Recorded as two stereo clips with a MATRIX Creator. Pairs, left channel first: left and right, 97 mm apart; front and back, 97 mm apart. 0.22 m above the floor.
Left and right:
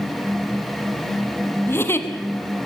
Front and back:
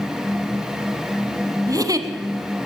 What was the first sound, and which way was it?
A giggle, 145° left.